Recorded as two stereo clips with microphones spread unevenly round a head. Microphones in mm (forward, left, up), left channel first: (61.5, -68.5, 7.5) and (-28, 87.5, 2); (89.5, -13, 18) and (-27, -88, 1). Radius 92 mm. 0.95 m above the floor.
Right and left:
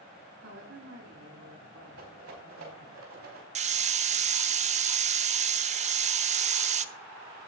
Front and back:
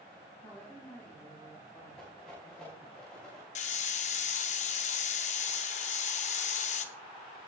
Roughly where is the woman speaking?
Behind left.